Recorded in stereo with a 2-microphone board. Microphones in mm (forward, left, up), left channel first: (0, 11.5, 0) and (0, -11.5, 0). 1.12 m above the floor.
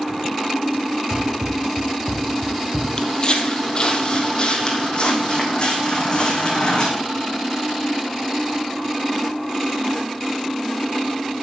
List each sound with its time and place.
1.1 s running footsteps: 40° right (ahead or behind), 2.5 m; by 2.9 s 5° right (ahead or behind), 2.5 m
3.0 s footsteps: 35° left (ahead or behind), 1.5 m; by 6.9 s 40° left (ahead or behind), 3.5 m